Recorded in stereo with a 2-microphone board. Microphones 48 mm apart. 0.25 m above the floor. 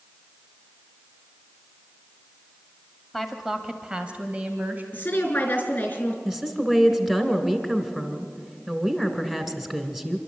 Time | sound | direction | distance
3.1 | a woman speaking | centre (ahead or behind) | 1.6 m
4.9 | a woman speaking | 35° left (ahead or behind) | 4 m
6.2 | a woman speaking | 10° right (ahead or behind) | 2 m